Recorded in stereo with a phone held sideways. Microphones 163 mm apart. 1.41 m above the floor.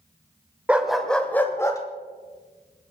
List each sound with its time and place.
0.7 s a dog barking: 10° right (ahead or behind), 1.5 m; by 1.8 s 20° left (ahead or behind), 2 m